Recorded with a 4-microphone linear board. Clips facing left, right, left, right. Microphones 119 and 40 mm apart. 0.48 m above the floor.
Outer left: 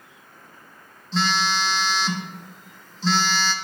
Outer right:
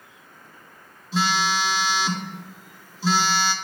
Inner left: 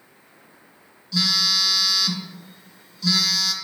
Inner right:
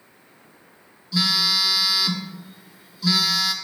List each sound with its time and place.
1.1 s a phone buzzing: 10° right (ahead or behind), 0.8 m